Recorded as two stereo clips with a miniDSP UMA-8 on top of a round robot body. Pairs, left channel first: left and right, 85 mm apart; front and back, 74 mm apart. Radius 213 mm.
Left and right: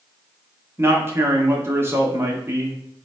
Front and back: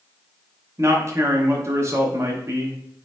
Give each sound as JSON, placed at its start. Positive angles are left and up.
{"t": 0.8, "sound": "a man speaking", "azimuth_deg": -140, "distance_m": 1.3}